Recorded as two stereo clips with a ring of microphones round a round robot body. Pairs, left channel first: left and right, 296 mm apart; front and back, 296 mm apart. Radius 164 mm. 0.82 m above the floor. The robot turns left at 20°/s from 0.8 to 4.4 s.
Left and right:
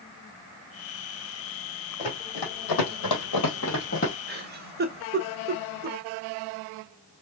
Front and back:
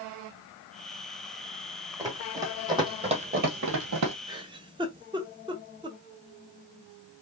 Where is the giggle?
115° right, 0.9 m.